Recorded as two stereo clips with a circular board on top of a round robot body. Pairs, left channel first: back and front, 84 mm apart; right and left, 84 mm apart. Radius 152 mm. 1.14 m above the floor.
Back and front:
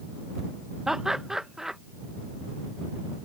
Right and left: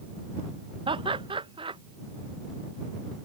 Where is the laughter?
85° left.